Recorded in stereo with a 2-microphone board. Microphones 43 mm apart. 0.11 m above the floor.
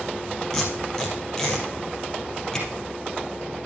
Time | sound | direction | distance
0.5 | tape being pulled | 10° left (ahead or behind) | 2.5 m